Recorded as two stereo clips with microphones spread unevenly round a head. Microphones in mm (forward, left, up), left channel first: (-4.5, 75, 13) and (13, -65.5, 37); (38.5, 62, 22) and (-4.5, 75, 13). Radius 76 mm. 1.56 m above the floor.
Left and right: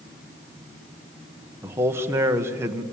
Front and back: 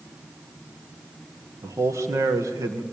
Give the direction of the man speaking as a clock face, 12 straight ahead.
5 o'clock.